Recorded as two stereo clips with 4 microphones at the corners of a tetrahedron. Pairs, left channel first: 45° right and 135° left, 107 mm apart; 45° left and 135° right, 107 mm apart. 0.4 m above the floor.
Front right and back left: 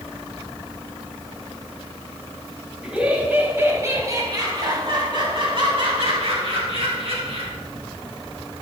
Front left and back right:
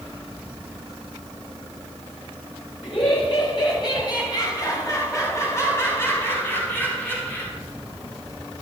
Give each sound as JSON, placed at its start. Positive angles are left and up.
{"t": 2.8, "sound": "laughter", "azimuth_deg": 55, "distance_m": 2.5}